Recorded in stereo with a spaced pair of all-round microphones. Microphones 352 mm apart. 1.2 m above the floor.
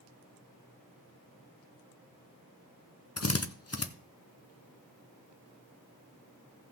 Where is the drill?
45° left (ahead or behind), 0.8 m.